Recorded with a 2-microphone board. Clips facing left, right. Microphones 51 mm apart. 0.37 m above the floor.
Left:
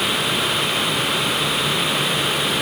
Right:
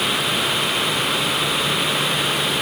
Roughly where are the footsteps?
I don't hear footsteps.